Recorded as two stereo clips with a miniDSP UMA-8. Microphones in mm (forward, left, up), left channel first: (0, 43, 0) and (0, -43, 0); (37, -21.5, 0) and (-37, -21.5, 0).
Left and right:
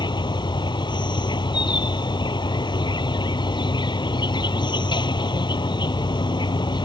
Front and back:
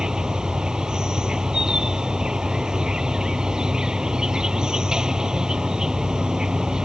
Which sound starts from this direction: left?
An insect, at 0.0 s.